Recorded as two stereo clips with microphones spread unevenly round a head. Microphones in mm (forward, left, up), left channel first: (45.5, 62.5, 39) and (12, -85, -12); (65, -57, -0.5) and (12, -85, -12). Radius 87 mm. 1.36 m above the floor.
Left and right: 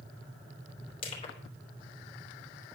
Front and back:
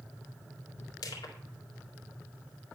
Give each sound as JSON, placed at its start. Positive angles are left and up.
{"t": 1.0, "sound": "crushing", "azimuth_deg": 30, "distance_m": 3.0}